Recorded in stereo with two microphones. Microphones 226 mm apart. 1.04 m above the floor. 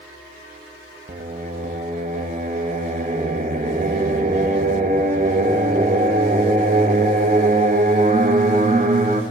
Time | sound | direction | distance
1.1 | singing | 35° right (ahead or behind) | 1.1 m